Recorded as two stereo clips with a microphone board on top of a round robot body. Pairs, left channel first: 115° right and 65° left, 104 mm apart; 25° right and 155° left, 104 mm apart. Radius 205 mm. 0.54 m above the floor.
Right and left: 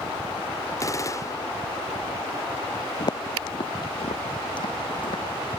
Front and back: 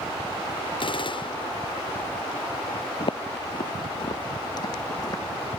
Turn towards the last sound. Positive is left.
turn(degrees=-75)